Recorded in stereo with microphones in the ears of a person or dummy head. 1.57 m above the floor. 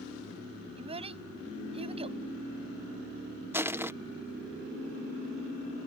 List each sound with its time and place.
0.8 s a child speaking: 35° right (ahead or behind)
3.5 s crushing: 15° right (ahead or behind)